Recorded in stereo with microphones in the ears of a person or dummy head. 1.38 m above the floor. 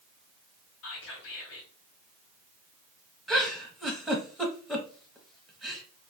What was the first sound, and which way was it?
Whispering, 60° left (ahead or behind).